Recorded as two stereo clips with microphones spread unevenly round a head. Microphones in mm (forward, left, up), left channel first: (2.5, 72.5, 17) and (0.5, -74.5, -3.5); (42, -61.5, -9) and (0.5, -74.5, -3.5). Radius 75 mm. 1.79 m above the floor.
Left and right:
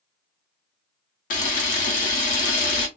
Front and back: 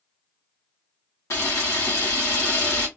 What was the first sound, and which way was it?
A camera shutter, 60° left.